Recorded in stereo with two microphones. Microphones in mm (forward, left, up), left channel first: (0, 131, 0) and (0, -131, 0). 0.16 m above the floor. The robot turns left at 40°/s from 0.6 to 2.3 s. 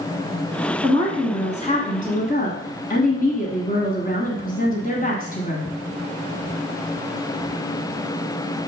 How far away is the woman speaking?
About 1.5 m.